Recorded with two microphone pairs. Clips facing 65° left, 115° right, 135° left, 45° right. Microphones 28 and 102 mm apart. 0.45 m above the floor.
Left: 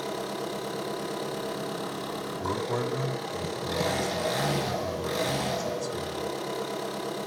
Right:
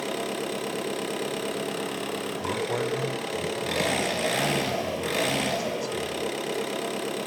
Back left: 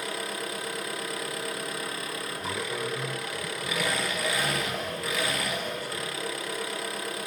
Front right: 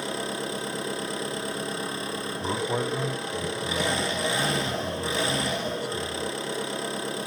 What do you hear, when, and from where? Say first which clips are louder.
0.0 s an engine running: right 3 dB, front right 3 dB; 105° right, 2.5 m
2.4 s a man speaking: right 1 dB, front right 6 dB; 40° right, 2.5 m